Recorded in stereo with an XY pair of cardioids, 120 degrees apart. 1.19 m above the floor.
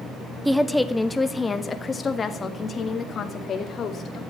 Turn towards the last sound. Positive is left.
turn(degrees=50)